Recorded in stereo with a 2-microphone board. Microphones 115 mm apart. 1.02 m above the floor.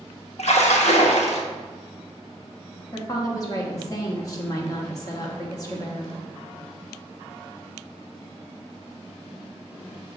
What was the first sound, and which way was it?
A splash, 70° left (ahead or behind).